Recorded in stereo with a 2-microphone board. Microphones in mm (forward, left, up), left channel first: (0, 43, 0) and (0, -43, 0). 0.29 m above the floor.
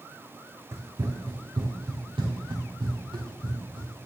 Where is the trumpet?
I don't hear a trumpet.